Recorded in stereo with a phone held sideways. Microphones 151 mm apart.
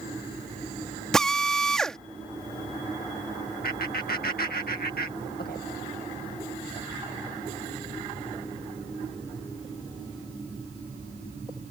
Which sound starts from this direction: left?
Laughter, at 3.6 s.